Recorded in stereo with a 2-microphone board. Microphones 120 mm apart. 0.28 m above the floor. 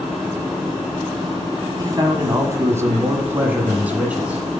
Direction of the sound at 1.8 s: 35° right (ahead or behind).